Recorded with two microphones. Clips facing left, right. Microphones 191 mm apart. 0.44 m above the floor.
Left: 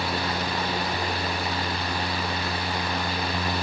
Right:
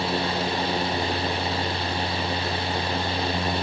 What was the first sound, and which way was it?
Only background noise.